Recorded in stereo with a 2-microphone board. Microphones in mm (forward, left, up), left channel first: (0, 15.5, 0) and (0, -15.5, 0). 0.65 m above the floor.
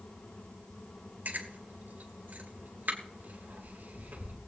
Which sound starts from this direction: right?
Chewing, at 1.2 s.